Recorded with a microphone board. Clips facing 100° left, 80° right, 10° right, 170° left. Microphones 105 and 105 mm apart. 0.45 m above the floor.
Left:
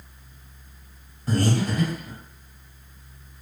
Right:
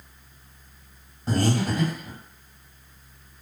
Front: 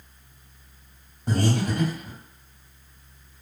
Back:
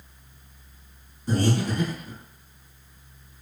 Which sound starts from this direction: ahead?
Breathing, at 1.3 s.